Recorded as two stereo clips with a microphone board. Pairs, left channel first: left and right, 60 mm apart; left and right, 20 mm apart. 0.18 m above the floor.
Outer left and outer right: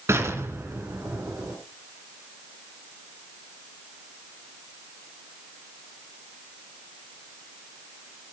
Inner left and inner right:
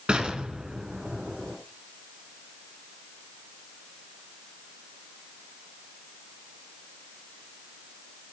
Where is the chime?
No chime in this recording.